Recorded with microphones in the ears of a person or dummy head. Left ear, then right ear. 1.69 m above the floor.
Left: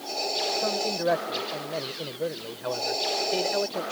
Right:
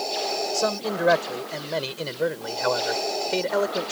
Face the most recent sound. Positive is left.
turn(degrees=-45)  # may be behind; listen again after turning